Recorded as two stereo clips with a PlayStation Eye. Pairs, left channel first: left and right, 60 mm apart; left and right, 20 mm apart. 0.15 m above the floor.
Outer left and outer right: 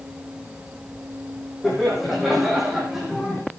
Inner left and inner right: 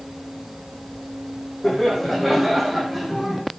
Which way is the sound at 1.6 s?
Centre (ahead or behind).